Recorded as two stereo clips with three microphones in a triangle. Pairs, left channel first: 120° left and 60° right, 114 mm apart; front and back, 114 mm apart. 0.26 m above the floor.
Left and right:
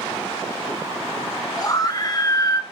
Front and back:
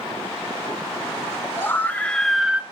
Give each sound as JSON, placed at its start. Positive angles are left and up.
{"t": 1.6, "sound": "a scream", "azimuth_deg": 65, "distance_m": 2.0}